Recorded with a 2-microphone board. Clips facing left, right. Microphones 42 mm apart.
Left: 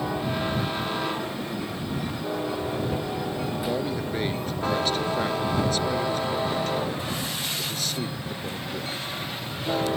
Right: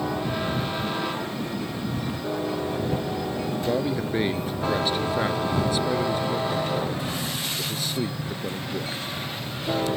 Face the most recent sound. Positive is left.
turn(degrees=-15)  # may be behind; listen again after turning